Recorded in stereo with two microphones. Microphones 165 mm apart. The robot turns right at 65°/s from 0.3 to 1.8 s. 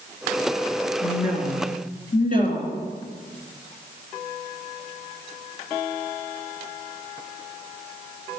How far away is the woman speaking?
About 3 m.